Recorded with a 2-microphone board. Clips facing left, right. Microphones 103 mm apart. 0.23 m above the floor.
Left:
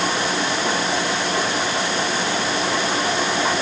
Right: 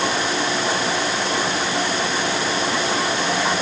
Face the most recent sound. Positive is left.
No sound to turn to.